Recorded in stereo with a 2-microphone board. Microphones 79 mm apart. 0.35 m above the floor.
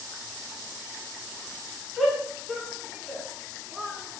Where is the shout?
10° left (ahead or behind), 3.5 m.